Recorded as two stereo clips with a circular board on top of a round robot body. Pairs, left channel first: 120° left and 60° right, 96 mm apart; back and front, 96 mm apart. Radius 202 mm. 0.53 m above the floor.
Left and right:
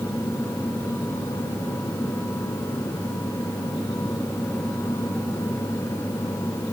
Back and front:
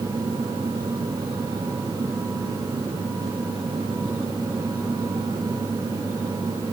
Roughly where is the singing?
I don't hear singing.